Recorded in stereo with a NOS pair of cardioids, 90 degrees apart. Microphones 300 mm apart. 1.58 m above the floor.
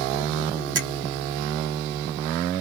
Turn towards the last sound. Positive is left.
turn(degrees=-50)